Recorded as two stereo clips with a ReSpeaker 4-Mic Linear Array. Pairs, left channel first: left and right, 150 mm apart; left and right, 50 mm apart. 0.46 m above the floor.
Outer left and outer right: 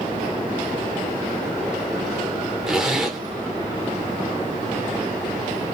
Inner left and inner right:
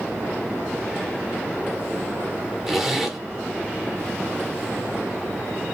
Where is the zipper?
5° right (ahead or behind), 0.8 m.